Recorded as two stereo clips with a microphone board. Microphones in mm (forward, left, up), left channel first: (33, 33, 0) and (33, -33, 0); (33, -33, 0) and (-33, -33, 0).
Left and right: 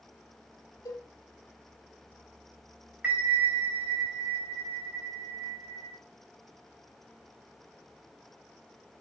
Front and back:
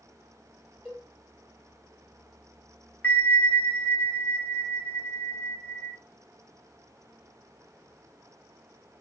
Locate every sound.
0.8 s a cowbell: 110° left, 2.5 m
3.0 s a bell: 35° right, 0.8 m